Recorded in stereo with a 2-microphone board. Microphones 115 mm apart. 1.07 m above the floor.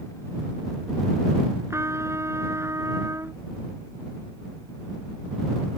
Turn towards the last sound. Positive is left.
turn(degrees=-25)  # may be behind; listen again after turning